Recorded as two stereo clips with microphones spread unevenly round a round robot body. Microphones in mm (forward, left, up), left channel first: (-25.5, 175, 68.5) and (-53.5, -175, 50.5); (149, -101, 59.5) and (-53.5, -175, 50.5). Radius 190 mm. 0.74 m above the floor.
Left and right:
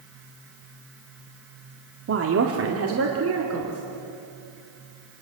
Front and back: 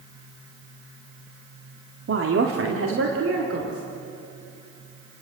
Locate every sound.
2.1 s a woman speaking: 145° right, 1.9 m